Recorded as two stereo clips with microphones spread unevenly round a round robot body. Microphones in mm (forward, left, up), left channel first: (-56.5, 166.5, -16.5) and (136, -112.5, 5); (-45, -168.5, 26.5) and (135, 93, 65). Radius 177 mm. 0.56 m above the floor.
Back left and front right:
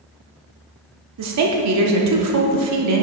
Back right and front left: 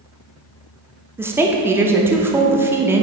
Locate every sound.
1.2 s a woman speaking: 30° right, 0.8 m